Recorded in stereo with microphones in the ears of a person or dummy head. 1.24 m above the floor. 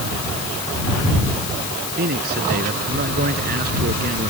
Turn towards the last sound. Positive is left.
turn(degrees=-55)  # may be behind; listen again after turning